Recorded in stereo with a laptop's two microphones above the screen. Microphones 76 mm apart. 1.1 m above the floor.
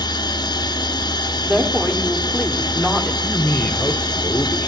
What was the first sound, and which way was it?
A machine running, 70° left (ahead or behind).